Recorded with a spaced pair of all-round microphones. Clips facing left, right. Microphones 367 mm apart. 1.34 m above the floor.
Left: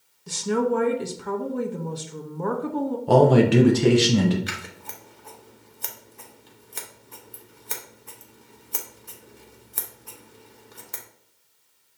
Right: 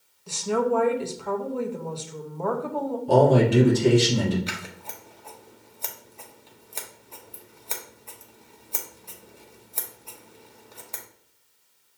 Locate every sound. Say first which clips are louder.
0.3 s a woman speaking: left 1 dB; 25° left (ahead or behind), 0.6 m
3.1 s a man speaking: left 2 dB; 75° left (ahead or behind), 0.8 m
4.5 s scissors: right 1 dB; 25° left (ahead or behind), 0.7 m